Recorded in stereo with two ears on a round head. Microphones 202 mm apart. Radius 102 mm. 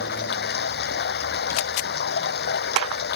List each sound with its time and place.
0.0 s running water: 50° left (ahead or behind)